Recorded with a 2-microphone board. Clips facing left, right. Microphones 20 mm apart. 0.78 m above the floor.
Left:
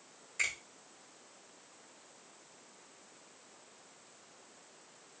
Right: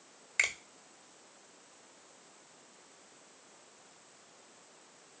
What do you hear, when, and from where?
0.4 s a finger snap: 50° right (ahead or behind), 1.1 m